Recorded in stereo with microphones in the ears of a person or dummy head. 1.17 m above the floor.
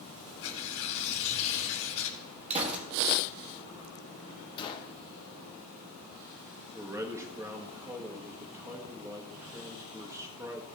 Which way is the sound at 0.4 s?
70° left (ahead or behind).